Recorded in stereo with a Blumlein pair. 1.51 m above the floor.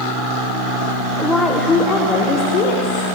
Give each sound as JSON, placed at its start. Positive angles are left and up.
{"t": 1.2, "sound": "a woman speaking", "azimuth_deg": 0, "distance_m": 0.9}